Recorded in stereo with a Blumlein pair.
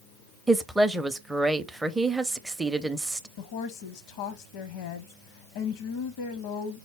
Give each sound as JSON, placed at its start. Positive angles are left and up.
{"t": 0.5, "sound": "a woman speaking", "azimuth_deg": -10, "distance_m": 0.5}
{"t": 3.4, "sound": "a woman speaking", "azimuth_deg": 50, "distance_m": 0.6}